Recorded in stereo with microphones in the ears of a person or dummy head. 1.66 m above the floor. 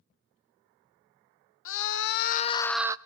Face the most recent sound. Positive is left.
turn(degrees=-15)  # may be behind; listen again after turning